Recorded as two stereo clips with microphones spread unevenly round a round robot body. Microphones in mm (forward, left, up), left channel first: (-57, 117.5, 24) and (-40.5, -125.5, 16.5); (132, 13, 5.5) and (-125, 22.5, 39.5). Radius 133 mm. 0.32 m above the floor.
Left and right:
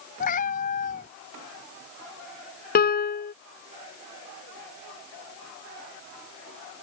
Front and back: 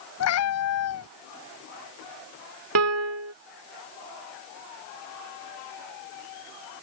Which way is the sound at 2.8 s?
145° left.